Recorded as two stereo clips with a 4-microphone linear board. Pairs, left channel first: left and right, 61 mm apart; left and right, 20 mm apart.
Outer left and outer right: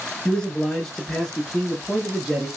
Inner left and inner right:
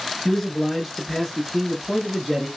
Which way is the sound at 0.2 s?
15° left (ahead or behind).